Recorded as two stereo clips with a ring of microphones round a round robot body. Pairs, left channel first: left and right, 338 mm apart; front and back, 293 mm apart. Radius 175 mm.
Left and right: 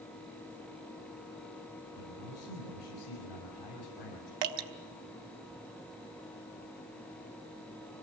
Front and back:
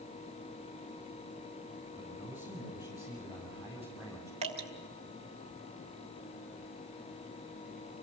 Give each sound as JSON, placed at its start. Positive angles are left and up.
{"t": 2.0, "sound": "a man speaking", "azimuth_deg": 75, "distance_m": 7.5}
{"t": 4.4, "sound": "dripping", "azimuth_deg": -110, "distance_m": 1.4}